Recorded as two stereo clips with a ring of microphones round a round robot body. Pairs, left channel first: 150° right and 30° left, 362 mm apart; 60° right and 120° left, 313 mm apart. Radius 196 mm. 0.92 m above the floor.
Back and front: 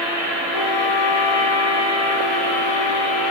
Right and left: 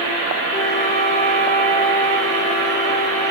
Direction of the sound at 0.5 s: 130° right.